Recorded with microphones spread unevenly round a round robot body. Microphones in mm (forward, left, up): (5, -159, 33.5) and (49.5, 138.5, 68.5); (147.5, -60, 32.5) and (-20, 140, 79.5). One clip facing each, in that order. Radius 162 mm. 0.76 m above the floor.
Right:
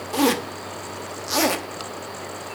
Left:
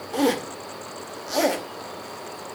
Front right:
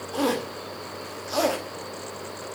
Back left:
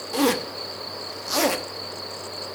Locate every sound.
0.1 s a zipper: 165° right, 1.0 m